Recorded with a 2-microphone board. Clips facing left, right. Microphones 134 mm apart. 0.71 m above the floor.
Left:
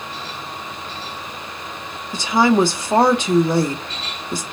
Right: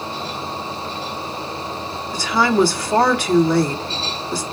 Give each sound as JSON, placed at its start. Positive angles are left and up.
{"t": 2.1, "sound": "a woman speaking", "side_deg": 20, "distance_m": 1.4}